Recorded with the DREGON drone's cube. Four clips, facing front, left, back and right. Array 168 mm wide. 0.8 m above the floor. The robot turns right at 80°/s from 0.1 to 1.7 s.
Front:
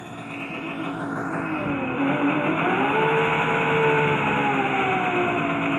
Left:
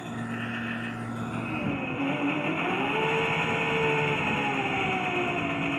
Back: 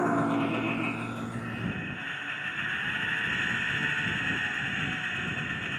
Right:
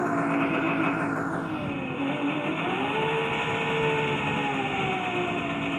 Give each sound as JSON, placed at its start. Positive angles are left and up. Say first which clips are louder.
{"t": 0.0, "sound": "an engine running", "louder": "right 10 dB, back 9 dB", "azimuth_deg": -135}